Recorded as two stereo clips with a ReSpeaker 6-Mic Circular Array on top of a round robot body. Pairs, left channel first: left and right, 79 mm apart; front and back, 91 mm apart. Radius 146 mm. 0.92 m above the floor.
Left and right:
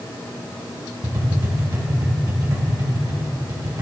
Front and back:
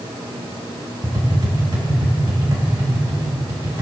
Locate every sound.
1.0 s tapping: 130° right, 2 m